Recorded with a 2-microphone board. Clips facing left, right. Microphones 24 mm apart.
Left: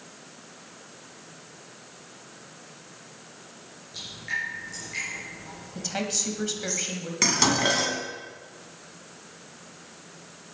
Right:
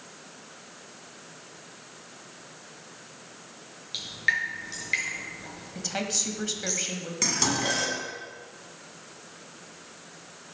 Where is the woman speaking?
Centre (ahead or behind), 1.5 m.